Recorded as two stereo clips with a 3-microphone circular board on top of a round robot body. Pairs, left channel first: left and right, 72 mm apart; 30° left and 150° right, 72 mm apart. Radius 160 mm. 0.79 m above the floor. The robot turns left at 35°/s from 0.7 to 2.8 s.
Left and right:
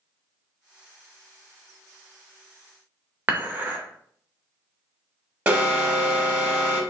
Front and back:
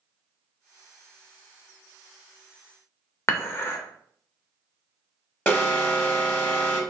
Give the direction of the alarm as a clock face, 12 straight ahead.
1 o'clock.